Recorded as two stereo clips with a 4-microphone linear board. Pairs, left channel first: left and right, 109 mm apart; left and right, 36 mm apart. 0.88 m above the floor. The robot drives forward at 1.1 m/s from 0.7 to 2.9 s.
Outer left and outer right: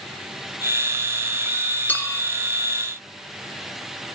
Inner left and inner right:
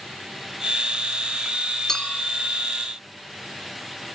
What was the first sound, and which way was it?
A clink, 15° left (ahead or behind).